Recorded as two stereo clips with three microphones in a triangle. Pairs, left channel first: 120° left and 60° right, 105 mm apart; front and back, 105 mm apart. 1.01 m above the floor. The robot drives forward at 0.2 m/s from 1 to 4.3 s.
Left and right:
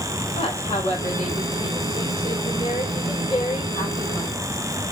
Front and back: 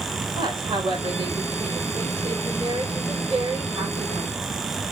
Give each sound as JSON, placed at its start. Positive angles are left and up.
{"t": 0.3, "sound": "a woman speaking", "azimuth_deg": 135, "distance_m": 3.5}